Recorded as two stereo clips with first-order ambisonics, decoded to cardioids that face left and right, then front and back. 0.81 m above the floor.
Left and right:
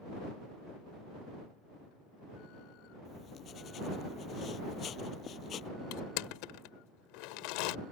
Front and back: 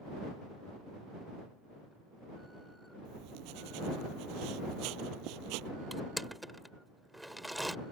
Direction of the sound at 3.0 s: 150° left.